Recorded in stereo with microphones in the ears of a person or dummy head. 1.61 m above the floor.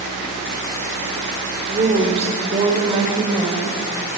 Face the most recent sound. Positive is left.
turn(degrees=-30)  # may be behind; listen again after turning